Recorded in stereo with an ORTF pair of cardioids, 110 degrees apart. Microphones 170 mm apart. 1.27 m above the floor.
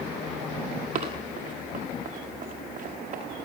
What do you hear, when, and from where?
0.9 s running footsteps: 50° right, 7.5 m